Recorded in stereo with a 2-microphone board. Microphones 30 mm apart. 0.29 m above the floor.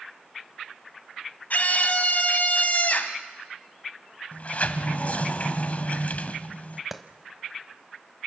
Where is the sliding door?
50° left (ahead or behind), 1.0 m.